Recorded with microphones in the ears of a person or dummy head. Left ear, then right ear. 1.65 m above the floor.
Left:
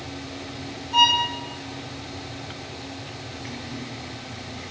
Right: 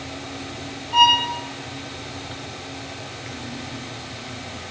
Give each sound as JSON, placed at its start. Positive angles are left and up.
{"t": 0.9, "sound": "a violin", "side_deg": -35, "distance_m": 1.0}